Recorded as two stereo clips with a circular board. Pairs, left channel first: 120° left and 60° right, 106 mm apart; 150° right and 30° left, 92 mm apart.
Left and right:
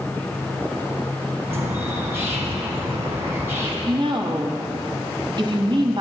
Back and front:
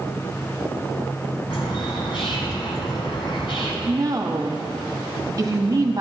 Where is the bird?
125° right, 2 m.